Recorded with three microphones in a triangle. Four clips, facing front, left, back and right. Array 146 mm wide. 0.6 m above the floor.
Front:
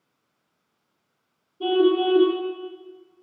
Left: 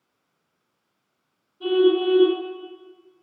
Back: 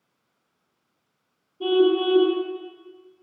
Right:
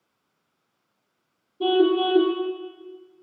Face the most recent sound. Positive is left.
turn(degrees=-90)